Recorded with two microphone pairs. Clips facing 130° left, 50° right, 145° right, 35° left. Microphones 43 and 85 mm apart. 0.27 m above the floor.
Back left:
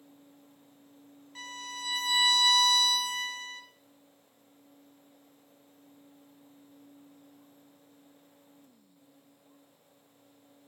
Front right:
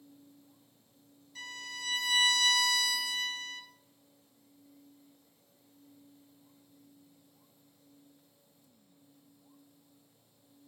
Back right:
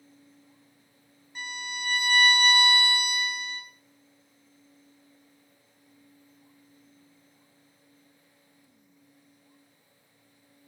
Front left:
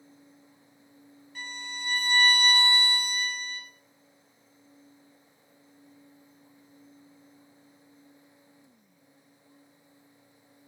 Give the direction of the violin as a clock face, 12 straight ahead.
7 o'clock.